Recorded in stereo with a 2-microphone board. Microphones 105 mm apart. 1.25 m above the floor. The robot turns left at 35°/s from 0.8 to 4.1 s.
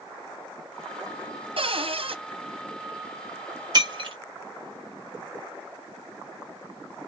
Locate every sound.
1.6 s a cupboard door: 55° right (ahead or behind), 0.7 m; by 2.2 s 60° right (ahead or behind), 0.7 m
3.7 s breaking glass: 40° right (ahead or behind), 1.5 m; by 4.2 s 55° right (ahead or behind), 1.5 m